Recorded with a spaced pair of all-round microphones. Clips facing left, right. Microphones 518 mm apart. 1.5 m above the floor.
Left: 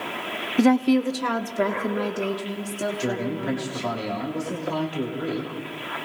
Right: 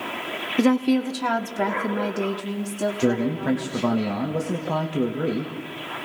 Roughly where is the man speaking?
Right.